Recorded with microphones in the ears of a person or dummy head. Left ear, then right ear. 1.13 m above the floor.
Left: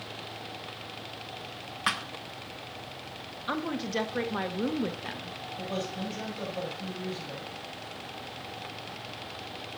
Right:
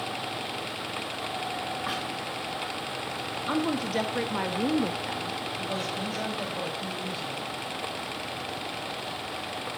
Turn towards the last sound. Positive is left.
turn(degrees=-5)  # may be behind; listen again after turning